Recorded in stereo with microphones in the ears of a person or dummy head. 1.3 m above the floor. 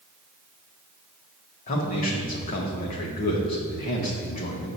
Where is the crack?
No crack in this recording.